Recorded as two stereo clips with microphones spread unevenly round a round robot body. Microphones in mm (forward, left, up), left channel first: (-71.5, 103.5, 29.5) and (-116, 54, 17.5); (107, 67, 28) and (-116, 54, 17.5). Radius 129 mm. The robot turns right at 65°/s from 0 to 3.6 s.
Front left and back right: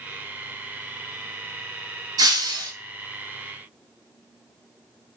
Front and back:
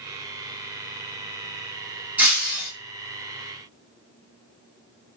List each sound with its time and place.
2.2 s breaking glass: 95° right, 2.0 m; by 2.7 s 60° right, 2.0 m